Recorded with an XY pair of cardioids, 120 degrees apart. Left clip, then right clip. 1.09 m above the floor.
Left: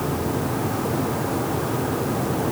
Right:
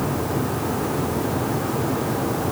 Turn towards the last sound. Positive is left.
No sound to turn to.